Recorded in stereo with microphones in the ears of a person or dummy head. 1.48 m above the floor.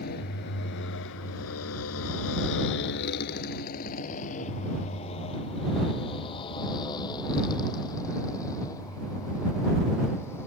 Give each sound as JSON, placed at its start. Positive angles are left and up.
{"t": 0.0, "sound": "a motorcycle", "side_deg": 55}